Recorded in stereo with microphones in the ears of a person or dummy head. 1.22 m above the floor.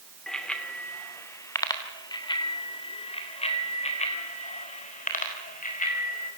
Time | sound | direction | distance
0.3 | a bicycle bell | 5° left (ahead or behind) | 2.5 m